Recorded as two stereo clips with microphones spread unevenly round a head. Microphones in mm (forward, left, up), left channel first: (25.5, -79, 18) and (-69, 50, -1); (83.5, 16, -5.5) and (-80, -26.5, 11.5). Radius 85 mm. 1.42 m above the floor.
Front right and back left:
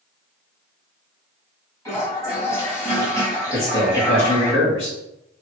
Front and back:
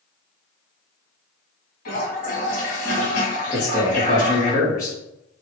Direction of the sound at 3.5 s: 60° right.